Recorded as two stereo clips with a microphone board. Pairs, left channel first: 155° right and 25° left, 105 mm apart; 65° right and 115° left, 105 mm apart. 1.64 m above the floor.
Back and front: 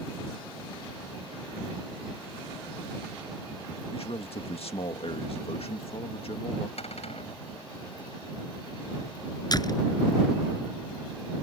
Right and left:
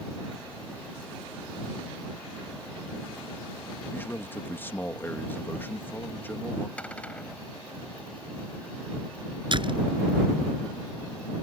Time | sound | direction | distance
3.9 | a man speaking | 135° right | ?
6.8 | a cupboard door | 145° right | ?
9.5 | a door slam | 150° left | ?